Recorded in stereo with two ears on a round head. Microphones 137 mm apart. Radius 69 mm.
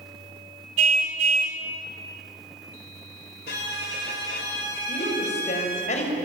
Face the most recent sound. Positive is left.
turn(degrees=55)  # may be behind; listen again after turning